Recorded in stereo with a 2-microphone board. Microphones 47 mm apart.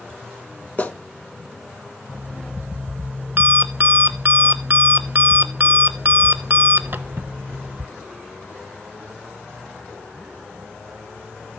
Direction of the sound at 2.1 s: 45° right (ahead or behind).